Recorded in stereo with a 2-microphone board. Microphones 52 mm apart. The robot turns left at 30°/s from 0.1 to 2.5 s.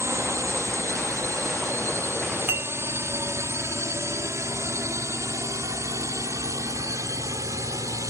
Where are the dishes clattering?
45° right (ahead or behind).